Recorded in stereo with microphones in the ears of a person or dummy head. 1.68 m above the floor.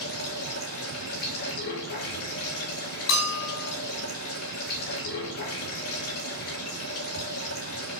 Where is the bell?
80° left, 5.5 m.